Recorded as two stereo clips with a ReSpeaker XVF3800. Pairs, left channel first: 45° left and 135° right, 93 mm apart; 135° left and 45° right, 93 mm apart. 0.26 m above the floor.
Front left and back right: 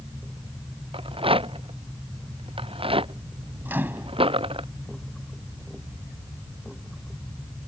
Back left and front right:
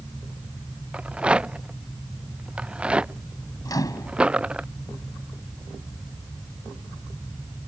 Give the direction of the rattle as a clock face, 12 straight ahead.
4 o'clock.